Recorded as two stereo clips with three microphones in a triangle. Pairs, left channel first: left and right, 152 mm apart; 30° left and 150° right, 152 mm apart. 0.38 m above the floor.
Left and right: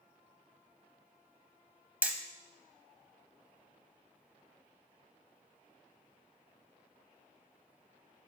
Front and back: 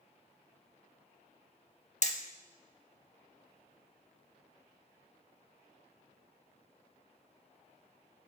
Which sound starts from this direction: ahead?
Hammering, at 2.0 s.